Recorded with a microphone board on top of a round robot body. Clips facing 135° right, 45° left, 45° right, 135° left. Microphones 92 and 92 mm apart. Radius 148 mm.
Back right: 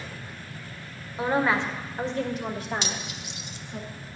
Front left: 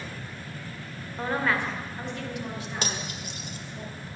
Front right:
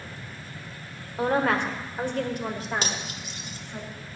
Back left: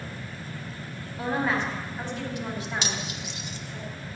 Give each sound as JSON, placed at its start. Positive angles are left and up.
{"t": 1.2, "sound": "a woman speaking", "azimuth_deg": -55, "distance_m": 2.0}
{"t": 2.8, "sound": "cutlery clinking", "azimuth_deg": 0, "distance_m": 1.3}